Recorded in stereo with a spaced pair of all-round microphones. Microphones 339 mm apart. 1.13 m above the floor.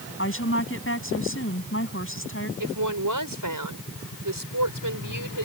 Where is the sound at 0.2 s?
40° left (ahead or behind).